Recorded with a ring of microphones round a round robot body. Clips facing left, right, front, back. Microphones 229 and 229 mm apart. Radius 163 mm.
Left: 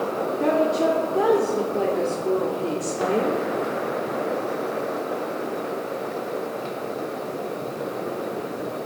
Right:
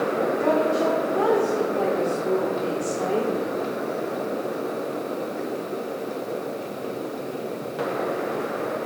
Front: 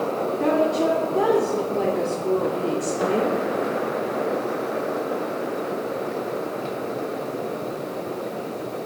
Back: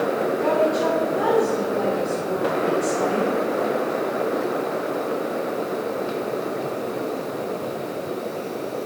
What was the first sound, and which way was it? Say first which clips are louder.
A woman speaking: left 3 dB, front 2 dB; 25° left.